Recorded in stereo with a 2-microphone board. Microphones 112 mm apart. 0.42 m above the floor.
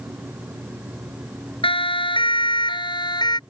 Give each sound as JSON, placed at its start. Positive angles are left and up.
{"t": 1.6, "sound": "a siren", "side_deg": 50}